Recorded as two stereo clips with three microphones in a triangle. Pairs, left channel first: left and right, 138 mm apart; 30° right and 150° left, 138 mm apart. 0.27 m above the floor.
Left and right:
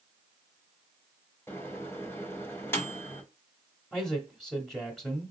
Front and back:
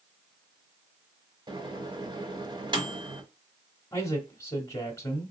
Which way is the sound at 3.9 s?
5° left.